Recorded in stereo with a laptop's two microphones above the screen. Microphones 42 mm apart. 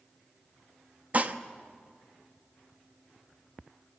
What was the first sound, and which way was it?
Dishes clattering, 40° right (ahead or behind).